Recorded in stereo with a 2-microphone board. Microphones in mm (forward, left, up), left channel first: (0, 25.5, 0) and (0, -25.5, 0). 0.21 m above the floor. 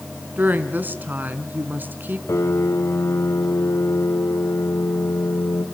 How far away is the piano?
About 3.5 m.